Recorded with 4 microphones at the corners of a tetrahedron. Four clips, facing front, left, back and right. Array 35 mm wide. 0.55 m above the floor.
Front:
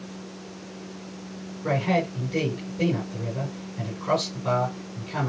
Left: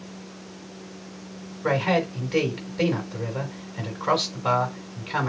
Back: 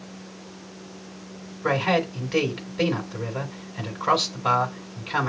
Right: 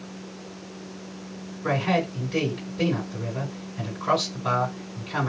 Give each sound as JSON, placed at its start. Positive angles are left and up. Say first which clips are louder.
{"t": 1.6, "sound": "a man speaking", "louder": "left 1 dB, back 2 dB", "azimuth_deg": 150, "distance_m": 4.0}